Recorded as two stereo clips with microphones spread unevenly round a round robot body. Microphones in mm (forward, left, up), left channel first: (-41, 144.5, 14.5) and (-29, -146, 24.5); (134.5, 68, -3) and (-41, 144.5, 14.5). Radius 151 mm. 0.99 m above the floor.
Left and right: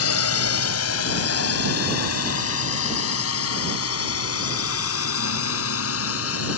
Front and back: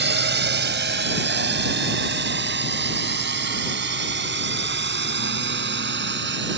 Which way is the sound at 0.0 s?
130° left.